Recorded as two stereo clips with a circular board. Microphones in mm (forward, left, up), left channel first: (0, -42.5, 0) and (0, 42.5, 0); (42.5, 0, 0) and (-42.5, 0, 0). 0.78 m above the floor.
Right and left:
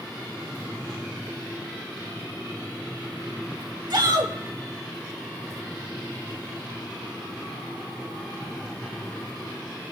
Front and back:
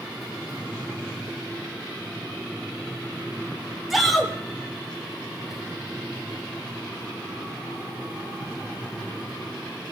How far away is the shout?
About 1.6 m.